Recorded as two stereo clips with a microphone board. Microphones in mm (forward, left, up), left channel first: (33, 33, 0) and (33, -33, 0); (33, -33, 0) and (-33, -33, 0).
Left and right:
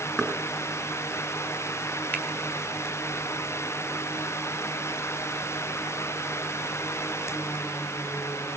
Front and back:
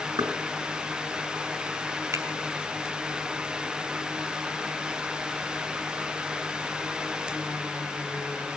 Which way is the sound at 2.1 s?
155° left.